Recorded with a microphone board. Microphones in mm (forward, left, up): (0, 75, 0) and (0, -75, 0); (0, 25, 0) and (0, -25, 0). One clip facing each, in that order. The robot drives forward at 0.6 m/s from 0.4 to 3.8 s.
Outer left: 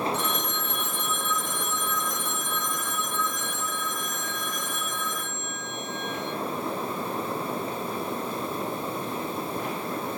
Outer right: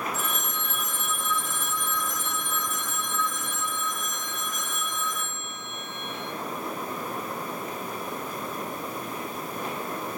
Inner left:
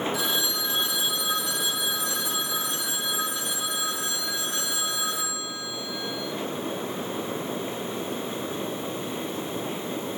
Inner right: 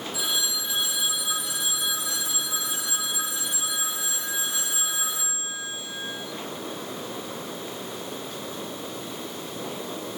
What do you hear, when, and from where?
0.1 s a phone ringing: 5° right (ahead or behind), 1.6 m; by 6.3 s centre (ahead or behind), 3.5 m